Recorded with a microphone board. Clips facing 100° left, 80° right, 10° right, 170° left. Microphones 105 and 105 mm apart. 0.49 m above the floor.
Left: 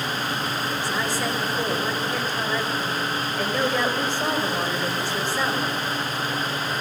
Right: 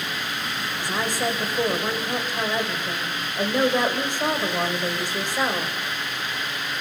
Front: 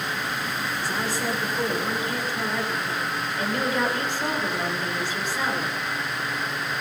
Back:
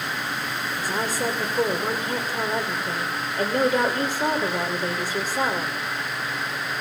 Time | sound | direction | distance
0.8 | a woman speaking | 150° right | 2 m